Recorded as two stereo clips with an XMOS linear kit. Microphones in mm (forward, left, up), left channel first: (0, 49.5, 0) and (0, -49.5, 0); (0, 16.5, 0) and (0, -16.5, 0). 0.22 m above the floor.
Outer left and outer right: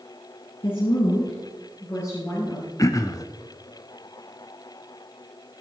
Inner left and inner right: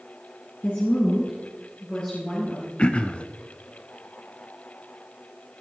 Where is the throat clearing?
35° left (ahead or behind), 0.6 m.